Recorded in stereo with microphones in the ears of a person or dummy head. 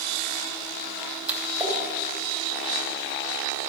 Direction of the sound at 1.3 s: 10° right (ahead or behind).